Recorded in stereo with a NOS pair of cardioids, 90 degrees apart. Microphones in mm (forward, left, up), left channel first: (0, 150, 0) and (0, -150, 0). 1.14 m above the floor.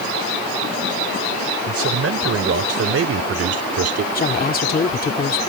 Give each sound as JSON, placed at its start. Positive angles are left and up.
{"t": 1.7, "sound": "a man speaking", "azimuth_deg": -50}
{"t": 4.2, "sound": "a woman speaking", "azimuth_deg": 30}